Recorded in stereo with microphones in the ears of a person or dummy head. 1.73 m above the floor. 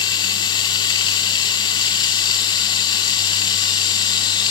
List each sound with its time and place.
0.0 s running water: 20° left (ahead or behind), 0.7 m